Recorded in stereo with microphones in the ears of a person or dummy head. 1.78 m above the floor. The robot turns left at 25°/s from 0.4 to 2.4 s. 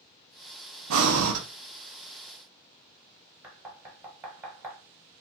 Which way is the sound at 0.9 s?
80° right.